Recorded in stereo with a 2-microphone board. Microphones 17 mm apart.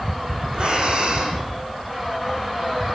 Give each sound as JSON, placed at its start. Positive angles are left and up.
{"t": 0.5, "sound": "breathing", "side_deg": -75, "distance_m": 8.5}